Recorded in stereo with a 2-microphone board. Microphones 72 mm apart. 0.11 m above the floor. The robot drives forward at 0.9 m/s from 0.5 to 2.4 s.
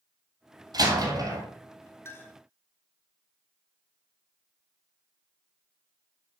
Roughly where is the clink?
Left.